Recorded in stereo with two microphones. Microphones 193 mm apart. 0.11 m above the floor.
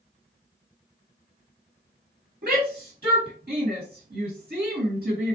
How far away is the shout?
About 2 m.